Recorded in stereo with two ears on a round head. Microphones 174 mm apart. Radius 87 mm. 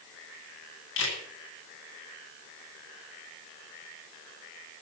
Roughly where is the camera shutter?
Left.